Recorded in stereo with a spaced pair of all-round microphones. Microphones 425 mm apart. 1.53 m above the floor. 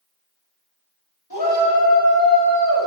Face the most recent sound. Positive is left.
turn(degrees=45)  # may be behind; listen again after turning